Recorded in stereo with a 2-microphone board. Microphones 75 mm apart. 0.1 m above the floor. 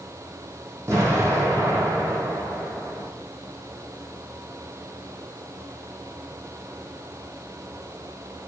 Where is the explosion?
40° right (ahead or behind), 3.5 m.